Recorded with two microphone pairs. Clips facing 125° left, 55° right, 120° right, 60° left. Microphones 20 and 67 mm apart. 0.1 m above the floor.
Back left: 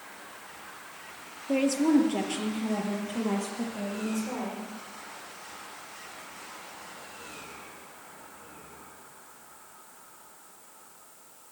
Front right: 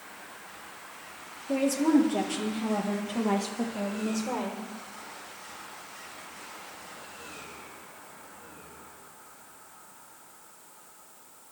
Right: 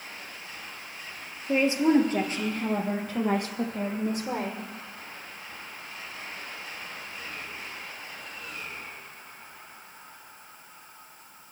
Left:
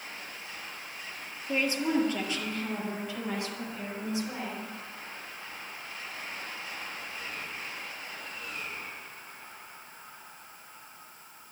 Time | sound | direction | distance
1.5 | a woman speaking | straight behind | 2 m